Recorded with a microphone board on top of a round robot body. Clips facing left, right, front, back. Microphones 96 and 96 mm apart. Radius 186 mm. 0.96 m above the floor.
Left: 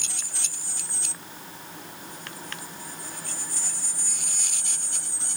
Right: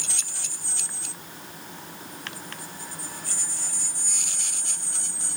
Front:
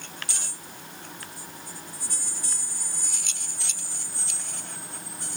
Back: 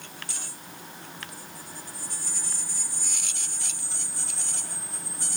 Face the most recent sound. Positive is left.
No sound to turn to.